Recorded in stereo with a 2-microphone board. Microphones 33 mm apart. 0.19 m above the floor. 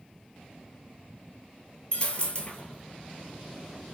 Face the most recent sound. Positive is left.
turn(degrees=35)  # may be behind; listen again after turning